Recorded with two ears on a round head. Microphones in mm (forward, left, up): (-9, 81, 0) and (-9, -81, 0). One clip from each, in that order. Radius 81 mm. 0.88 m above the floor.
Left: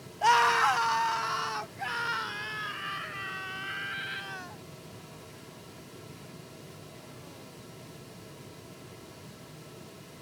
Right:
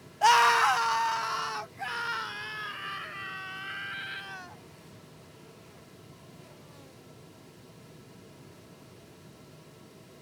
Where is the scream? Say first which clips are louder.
Right 2 dB; 30° right (ahead or behind); by 4.6 s centre (ahead or behind).